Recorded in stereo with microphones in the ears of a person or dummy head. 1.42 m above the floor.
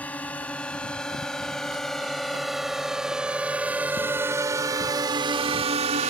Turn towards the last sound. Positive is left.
turn(degrees=-40)  # may be behind; listen again after turning